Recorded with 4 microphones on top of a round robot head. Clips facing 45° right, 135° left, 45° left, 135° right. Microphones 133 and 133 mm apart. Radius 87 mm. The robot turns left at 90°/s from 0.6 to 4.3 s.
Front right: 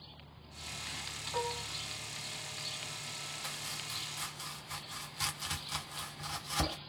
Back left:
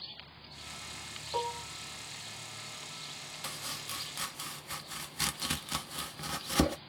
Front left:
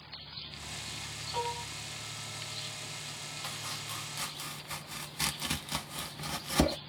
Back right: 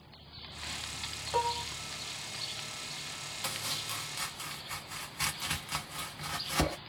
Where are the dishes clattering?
165° right, 0.9 m; by 1.7 s 160° left, 0.9 m.